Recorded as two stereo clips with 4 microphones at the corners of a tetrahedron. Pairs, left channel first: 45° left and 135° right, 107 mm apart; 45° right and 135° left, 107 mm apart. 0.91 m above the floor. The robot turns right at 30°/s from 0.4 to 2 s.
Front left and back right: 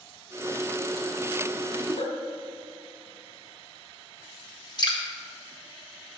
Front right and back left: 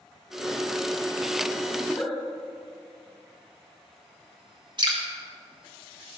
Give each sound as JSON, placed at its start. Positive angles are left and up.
{"t": 1.8, "sound": "a giggle", "azimuth_deg": 35, "distance_m": 2.5}
{"t": 4.8, "sound": "dripping", "azimuth_deg": 95, "distance_m": 2.0}